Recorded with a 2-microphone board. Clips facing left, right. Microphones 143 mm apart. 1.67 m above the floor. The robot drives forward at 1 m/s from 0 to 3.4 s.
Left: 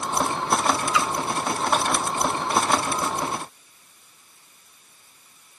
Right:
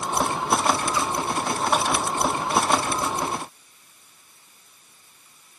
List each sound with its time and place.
0.9 s a splash: 80° left, 1.1 m; by 1.1 s 75° left (ahead or behind), 1.1 m